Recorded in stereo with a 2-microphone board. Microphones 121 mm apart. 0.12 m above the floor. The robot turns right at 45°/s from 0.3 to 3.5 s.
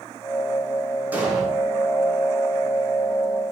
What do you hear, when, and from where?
1.1 s an explosion: 15° right (ahead or behind), 5.5 m; by 1.4 s centre (ahead or behind), 5.5 m